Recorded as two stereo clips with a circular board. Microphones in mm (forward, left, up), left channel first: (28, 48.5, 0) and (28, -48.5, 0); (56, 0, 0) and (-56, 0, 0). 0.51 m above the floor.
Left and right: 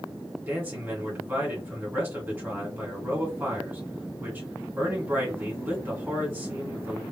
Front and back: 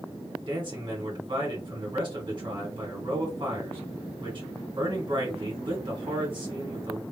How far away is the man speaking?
About 2.0 m.